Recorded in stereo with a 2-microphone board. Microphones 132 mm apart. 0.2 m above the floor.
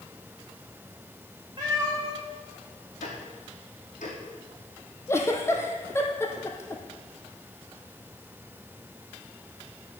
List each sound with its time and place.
1.6 s a cat meowing: 30° right (ahead or behind), 4.5 m
3.0 s ticking: 75° left (ahead or behind), 3 m
5.1 s a giggle: 20° left (ahead or behind), 1.3 m